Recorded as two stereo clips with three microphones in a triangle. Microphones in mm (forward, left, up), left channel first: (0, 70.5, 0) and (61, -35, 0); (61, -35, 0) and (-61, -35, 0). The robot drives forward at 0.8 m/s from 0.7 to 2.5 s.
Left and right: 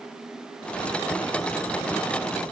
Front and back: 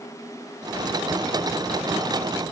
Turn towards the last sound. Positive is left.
No sound to turn to.